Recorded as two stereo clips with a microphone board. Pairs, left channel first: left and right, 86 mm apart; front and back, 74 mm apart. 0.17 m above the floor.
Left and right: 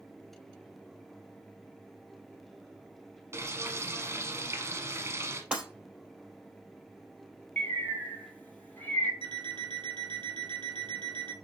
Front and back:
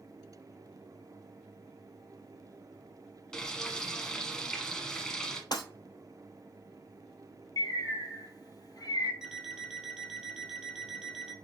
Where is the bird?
20° left, 0.7 m.